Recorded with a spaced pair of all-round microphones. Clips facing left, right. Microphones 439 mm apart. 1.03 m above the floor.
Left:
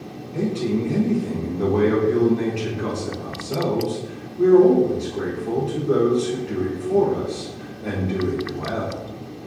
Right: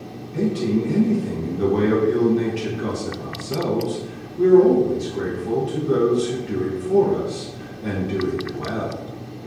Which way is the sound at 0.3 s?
30° right (ahead or behind).